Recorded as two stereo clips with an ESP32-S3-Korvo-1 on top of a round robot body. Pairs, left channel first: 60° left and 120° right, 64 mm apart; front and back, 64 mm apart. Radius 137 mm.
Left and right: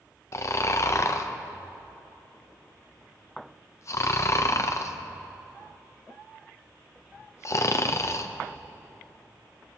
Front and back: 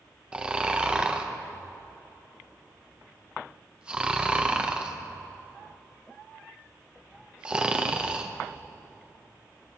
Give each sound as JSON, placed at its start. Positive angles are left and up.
{"t": 0.3, "sound": "snoring", "azimuth_deg": 105, "distance_m": 0.7}